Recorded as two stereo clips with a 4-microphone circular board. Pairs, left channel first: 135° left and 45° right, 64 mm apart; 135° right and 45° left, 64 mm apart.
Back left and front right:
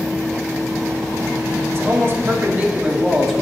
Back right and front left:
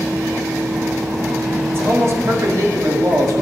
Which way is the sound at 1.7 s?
5° right.